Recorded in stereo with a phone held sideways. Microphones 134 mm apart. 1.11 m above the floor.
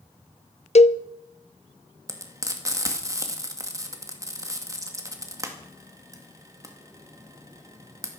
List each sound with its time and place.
0.8 s a cowbell: 55° left (ahead or behind), 0.6 m
2.1 s frying: 25° right (ahead or behind), 2 m